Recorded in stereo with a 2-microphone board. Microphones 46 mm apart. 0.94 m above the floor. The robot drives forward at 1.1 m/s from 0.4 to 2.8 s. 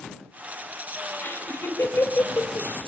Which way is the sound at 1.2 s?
50° left (ahead or behind).